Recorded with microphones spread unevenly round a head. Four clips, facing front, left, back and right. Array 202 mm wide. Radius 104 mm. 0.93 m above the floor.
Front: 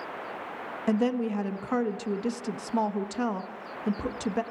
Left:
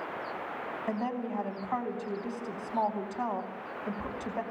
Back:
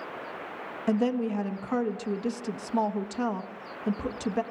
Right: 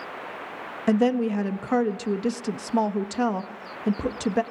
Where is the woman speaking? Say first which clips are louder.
Right 13 dB, even; 95° right, 1.5 m.